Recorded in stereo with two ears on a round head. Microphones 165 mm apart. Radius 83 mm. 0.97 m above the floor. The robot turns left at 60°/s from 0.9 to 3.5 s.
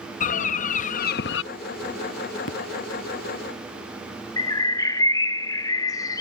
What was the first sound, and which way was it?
A bird, 135° left.